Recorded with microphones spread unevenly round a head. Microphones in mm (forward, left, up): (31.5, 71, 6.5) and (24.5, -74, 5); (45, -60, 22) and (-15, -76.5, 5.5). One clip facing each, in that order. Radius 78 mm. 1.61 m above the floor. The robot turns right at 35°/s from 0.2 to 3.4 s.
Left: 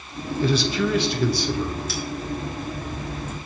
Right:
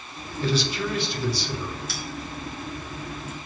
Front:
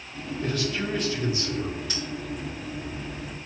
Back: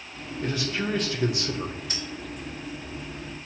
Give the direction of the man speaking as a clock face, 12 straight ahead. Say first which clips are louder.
Left 4 dB, even; 8 o'clock.